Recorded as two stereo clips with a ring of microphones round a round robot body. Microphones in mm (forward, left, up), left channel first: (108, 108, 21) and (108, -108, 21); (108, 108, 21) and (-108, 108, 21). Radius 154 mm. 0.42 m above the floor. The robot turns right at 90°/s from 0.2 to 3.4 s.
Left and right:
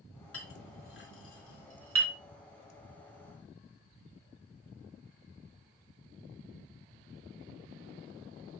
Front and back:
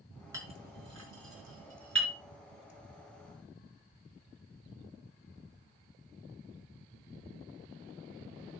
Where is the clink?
105° left, 4 m; by 2.1 s 95° right, 4 m.